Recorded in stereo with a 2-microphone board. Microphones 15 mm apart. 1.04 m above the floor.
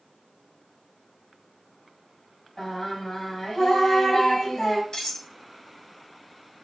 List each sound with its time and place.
2.6 s singing: 45° left (ahead or behind), 4.5 m
4.9 s cutlery clinking: 60° left (ahead or behind), 4.5 m